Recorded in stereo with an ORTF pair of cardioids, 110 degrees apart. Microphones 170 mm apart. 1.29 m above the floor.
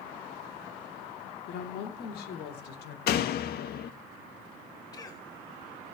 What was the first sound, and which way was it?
A woman speaking, 65° left.